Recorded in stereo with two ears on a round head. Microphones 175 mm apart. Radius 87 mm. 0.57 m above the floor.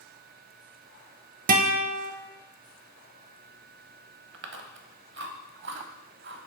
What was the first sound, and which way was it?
A guitar, 45° right (ahead or behind).